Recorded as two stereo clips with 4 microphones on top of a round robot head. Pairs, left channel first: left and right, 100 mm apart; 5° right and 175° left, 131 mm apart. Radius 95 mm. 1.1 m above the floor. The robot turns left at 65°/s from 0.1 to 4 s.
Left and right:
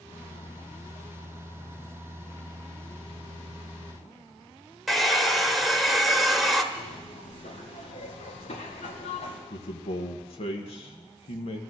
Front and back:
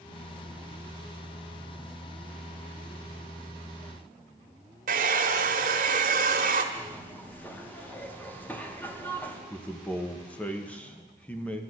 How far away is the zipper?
About 2 m.